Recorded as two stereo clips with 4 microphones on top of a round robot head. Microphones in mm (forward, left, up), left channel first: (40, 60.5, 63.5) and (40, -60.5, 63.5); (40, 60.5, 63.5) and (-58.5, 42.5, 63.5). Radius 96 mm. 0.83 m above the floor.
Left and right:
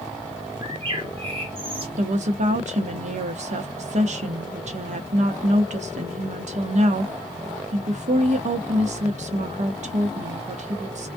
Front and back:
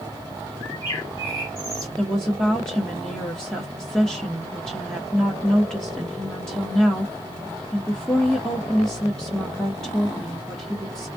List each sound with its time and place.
0.6 s a bird: 50° right, 2.0 m
2.0 s a woman speaking: 75° right, 0.8 m